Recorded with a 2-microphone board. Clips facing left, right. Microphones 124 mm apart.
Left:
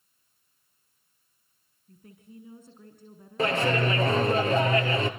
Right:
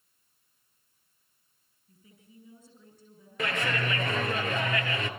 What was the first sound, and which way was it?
A woman speaking, 60° left (ahead or behind).